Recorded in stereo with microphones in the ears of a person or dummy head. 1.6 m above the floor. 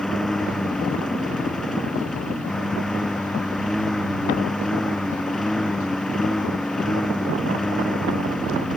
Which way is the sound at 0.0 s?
Centre (ahead or behind).